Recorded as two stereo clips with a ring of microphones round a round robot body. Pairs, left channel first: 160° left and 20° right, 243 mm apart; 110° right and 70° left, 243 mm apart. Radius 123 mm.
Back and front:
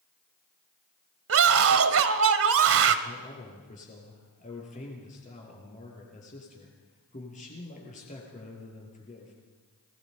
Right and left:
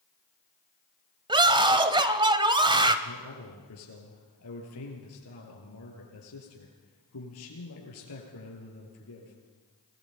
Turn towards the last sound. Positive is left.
turn(degrees=-140)